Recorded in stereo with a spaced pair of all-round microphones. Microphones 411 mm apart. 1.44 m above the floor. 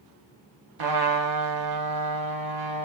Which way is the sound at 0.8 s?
60° right (ahead or behind).